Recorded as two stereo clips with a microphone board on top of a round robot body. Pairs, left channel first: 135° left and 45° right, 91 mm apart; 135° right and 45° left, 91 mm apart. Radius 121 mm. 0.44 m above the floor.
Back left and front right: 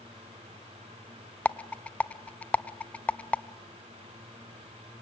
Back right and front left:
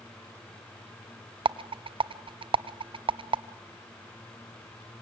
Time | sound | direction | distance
1.4 | a rattle | 60° left | 0.5 m